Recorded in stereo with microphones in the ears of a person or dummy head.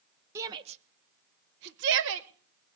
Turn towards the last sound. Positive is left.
turn(degrees=-70)  # may be behind; listen again after turning